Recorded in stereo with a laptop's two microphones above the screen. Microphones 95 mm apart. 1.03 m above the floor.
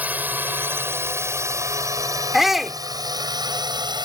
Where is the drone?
15° right (ahead or behind); by 4.0 s 50° right (ahead or behind).